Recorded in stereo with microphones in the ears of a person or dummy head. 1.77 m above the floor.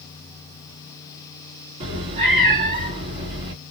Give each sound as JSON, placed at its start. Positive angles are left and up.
{"t": 1.8, "sound": "a cat meowing", "side_deg": -30, "distance_m": 2.0}